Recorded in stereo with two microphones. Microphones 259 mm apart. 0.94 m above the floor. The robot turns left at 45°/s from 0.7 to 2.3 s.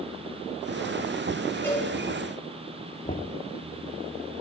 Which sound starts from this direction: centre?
A cowbell, at 1.6 s.